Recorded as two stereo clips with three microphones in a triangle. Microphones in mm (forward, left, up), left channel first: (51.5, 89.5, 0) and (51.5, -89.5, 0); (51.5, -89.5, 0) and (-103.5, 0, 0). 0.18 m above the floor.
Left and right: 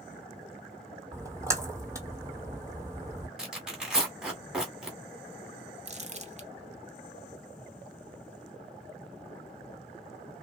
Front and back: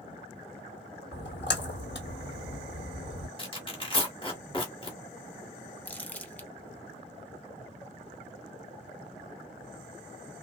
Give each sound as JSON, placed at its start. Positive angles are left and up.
{"t": 1.1, "sound": "a splash", "azimuth_deg": -15, "distance_m": 1.0}
{"t": 3.4, "sound": "tearing paper", "azimuth_deg": -5, "distance_m": 1.4}
{"t": 5.8, "sound": "crumpling", "azimuth_deg": -110, "distance_m": 0.7}